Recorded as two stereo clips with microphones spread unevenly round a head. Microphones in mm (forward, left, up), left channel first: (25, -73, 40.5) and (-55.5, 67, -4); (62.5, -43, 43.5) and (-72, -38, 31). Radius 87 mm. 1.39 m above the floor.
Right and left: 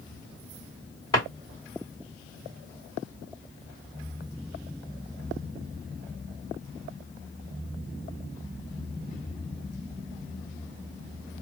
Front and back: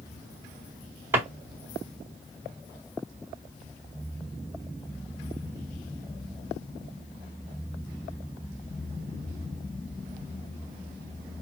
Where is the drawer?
110° right, 1.4 m.